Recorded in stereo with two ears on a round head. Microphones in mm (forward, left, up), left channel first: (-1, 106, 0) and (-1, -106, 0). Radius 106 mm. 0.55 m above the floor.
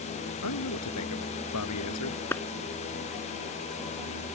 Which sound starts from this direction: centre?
A clap, at 2.3 s.